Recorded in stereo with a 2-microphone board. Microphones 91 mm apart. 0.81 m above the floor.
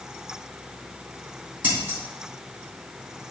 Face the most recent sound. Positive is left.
turn(degrees=-15)  # may be behind; listen again after turning